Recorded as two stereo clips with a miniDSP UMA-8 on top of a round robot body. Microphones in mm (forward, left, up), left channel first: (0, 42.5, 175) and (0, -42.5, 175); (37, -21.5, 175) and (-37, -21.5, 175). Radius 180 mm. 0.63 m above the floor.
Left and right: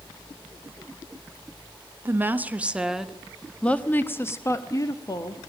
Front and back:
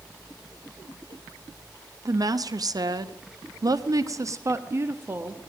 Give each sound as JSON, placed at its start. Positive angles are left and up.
{"t": 2.0, "sound": "a woman speaking", "azimuth_deg": -150, "distance_m": 1.6}